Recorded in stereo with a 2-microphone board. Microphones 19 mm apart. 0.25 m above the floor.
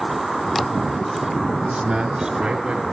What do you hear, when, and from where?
1.6 s a man speaking: 60° right (ahead or behind), 3.5 m